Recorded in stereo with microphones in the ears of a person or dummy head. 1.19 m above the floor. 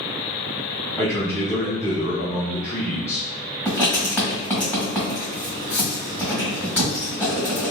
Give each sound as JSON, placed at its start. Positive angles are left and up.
{"t": 1.0, "sound": "a man speaking", "side_deg": 10, "distance_m": 1.1}
{"t": 3.6, "sound": "writing", "side_deg": 5, "distance_m": 1.6}